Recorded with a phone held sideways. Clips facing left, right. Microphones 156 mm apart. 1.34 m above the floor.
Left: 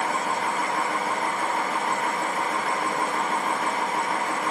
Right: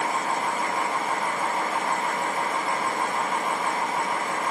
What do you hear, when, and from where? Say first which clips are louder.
0.0 s a machine running: even; 80° left, 4.5 m